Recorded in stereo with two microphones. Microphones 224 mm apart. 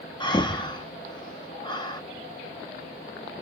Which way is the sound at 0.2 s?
20° left (ahead or behind).